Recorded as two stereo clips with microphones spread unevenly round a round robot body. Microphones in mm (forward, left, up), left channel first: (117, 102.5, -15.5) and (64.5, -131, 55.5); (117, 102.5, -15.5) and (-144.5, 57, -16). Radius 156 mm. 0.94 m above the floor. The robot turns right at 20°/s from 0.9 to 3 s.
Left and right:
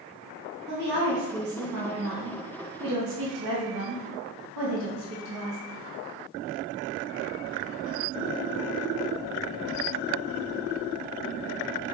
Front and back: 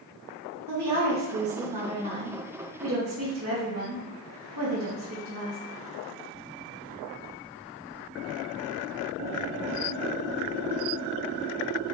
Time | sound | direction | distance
0.7 | a woman speaking | 165° right | 1.1 m